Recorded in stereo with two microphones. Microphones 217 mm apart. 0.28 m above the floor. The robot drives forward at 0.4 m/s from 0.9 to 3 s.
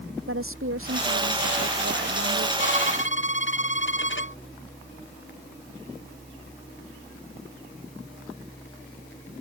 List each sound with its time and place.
0.3 s a woman speaking: 75° right (ahead or behind)
2.6 s a violin: 65° left (ahead or behind); by 4.4 s 60° left (ahead or behind)